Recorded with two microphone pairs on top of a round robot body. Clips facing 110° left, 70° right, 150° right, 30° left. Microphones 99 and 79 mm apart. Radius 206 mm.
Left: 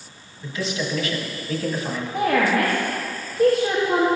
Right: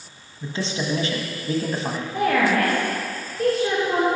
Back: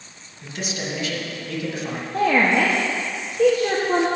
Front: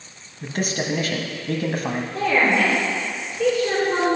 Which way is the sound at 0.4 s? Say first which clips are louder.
Even, front 5 dB; 10° right.